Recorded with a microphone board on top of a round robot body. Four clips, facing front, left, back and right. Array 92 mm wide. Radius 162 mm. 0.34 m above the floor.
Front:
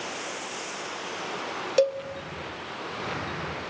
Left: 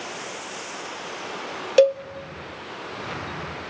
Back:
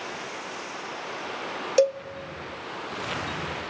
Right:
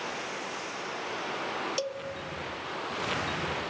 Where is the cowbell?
100° left, 1.0 m.